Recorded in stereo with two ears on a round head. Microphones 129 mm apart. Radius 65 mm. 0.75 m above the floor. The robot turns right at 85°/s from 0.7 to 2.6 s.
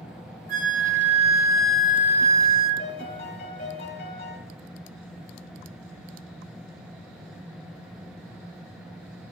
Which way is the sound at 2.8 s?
70° left (ahead or behind).